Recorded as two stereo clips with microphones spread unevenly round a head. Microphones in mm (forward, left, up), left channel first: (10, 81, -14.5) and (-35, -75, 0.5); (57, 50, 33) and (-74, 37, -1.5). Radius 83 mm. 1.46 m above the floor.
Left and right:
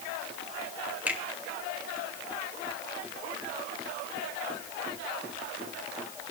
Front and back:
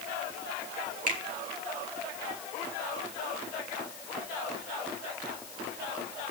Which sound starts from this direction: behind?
A finger snap, at 1.1 s.